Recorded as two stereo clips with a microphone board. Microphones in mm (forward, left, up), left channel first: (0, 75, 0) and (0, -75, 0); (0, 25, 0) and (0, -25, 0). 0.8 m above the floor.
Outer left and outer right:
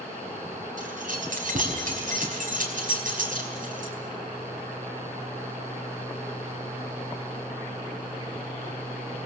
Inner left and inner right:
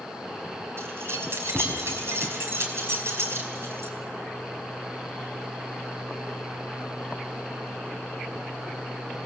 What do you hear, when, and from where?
0.8 s keys jangling: 65° right (ahead or behind), 4.5 m